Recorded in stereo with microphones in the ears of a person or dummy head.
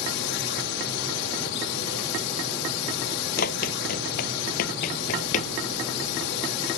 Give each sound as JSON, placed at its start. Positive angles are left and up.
{"t": 0.0, "sound": "a drone", "side_deg": 65}
{"t": 3.4, "sound": "running footsteps", "side_deg": 50}